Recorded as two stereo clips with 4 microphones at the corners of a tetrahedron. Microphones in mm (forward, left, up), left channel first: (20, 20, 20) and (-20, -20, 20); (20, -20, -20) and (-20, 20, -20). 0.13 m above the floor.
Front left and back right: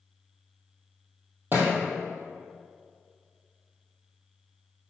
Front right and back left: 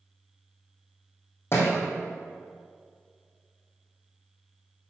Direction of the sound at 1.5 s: 85° right.